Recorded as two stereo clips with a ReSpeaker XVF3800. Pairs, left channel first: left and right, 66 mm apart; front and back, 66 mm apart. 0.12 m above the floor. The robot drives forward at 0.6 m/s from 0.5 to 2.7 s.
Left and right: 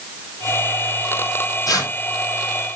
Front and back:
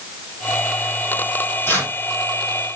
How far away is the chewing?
I don't hear chewing.